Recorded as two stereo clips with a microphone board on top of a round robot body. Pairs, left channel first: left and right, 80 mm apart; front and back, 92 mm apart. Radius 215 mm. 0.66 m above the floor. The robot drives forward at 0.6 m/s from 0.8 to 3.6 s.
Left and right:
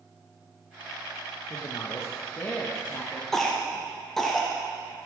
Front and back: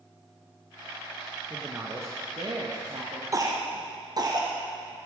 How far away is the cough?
About 0.9 m.